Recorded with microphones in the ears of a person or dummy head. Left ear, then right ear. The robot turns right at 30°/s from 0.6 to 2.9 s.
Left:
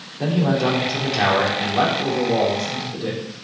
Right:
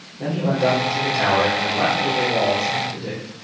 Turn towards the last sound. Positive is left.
turn(degrees=145)